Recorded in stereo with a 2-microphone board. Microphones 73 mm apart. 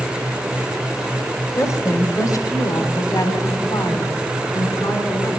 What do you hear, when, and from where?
1.6 s a woman speaking: 40° left (ahead or behind), 1.5 m; by 5.4 s 55° left (ahead or behind), 3.5 m